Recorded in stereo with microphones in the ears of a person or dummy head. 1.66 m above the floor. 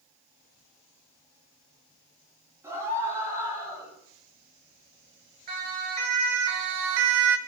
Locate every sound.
2.6 s a scream: 15° right (ahead or behind), 9.5 m; by 3.9 s 20° right (ahead or behind), 9.5 m
5.5 s a siren: 50° right (ahead or behind), 3.5 m; by 7.4 s 60° right (ahead or behind), 1.0 m